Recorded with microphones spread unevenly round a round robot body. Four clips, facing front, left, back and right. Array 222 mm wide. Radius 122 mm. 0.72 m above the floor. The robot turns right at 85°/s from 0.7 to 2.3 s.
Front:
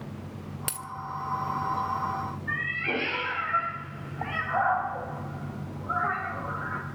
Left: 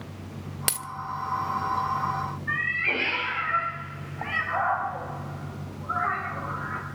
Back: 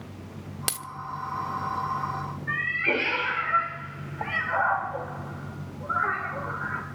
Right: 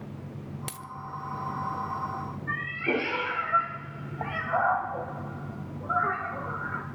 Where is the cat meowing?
120° right, 1.2 m.